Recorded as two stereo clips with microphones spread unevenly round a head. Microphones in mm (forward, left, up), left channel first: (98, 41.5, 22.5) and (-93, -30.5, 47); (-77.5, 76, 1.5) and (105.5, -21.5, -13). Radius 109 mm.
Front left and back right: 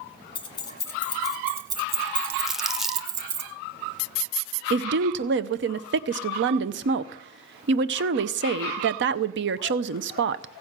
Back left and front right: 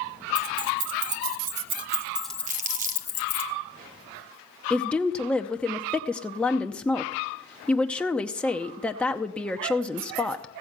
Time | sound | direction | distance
0.3 | keys jangling | 50° right | 1.3 m
2.5 | crumpling | 65° right | 0.7 m
4.7 | a woman speaking | 120° right | 0.6 m